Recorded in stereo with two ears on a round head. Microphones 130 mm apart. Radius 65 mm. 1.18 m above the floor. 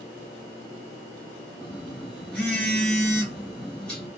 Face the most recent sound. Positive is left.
turn(degrees=5)  # may be behind; listen again after turning